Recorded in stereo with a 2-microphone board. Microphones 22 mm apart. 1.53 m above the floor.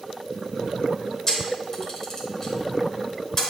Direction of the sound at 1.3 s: 25° left (ahead or behind).